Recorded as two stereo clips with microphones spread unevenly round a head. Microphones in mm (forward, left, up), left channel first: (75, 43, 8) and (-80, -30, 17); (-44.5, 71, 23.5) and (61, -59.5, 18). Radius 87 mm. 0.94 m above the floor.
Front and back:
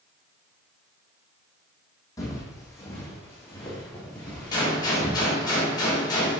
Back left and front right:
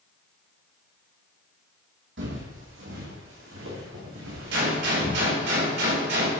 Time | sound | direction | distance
2.2 | footsteps | 45° right | 2 m
4.5 | a gunshot | 45° right | 3.5 m